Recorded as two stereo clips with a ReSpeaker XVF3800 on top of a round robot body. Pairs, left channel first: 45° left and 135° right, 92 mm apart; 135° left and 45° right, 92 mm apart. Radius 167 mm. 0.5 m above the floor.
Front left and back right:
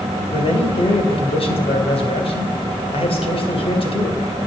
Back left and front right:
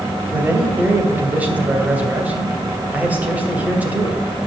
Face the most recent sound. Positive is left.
turn(degrees=30)